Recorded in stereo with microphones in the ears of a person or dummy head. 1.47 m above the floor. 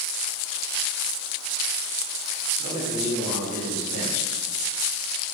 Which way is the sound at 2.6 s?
45° right (ahead or behind).